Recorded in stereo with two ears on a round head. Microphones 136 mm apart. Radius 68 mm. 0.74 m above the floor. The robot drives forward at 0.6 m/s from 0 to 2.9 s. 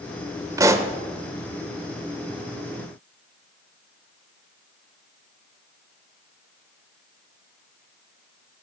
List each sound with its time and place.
0.6 s a pop: 20° right (ahead or behind), 0.8 m